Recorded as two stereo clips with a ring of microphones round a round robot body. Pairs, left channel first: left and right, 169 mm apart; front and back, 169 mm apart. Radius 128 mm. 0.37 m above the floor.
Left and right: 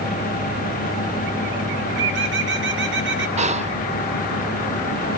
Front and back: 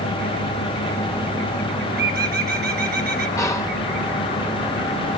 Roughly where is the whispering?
Ahead right.